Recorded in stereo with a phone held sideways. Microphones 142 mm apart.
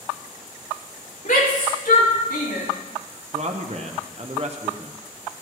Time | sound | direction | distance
1.2 | a shout | 70° left (ahead or behind) | 3 m
3.3 | a man speaking | 50° right (ahead or behind) | 0.9 m